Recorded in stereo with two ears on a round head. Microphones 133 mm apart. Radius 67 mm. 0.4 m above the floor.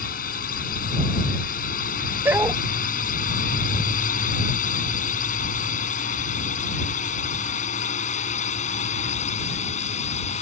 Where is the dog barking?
15° right (ahead or behind).